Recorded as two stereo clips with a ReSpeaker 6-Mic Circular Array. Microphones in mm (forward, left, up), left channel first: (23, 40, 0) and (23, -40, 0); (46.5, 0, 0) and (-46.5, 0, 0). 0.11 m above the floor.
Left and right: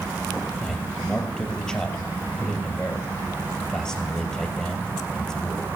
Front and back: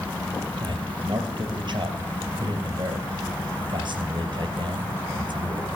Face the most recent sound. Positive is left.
turn(degrees=170)